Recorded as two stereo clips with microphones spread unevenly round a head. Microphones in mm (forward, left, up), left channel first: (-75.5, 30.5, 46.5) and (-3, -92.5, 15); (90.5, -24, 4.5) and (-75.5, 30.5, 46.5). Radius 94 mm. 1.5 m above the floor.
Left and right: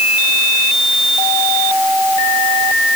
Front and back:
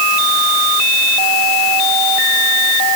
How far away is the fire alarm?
No fire alarm in this recording.